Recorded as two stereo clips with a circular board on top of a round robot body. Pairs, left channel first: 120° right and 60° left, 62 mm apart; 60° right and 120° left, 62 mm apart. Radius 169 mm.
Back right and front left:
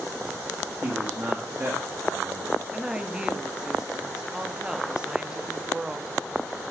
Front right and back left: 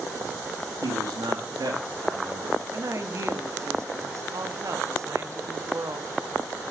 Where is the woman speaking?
135° left, 0.9 m.